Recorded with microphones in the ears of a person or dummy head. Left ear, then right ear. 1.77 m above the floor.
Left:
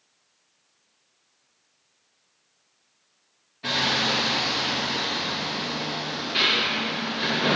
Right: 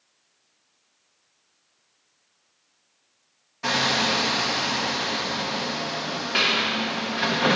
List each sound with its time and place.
3.6 s hammering: 40° right (ahead or behind), 0.8 m